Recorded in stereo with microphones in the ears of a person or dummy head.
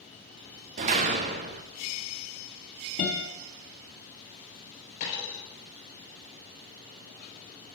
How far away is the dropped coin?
About 4 m.